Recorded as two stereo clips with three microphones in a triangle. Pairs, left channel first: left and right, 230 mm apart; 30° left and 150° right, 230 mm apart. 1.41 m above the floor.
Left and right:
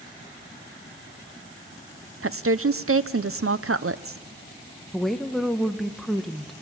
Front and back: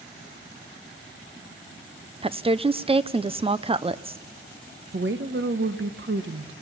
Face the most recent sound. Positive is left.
turn(degrees=180)